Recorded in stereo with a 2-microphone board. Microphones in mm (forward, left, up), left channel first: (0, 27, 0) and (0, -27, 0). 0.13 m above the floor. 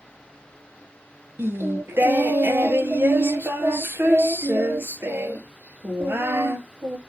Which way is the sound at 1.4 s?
45° right (ahead or behind).